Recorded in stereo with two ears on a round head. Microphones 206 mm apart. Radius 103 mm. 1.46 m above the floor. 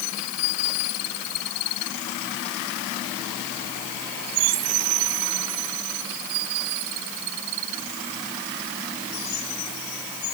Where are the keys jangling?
I don't hear keys jangling.